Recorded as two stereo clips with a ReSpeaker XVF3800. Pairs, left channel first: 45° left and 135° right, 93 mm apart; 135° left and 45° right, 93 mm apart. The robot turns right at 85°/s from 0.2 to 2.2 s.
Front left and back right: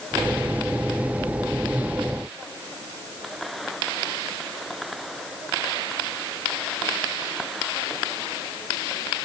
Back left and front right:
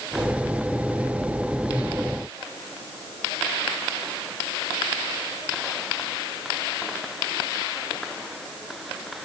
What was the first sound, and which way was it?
Only background noise.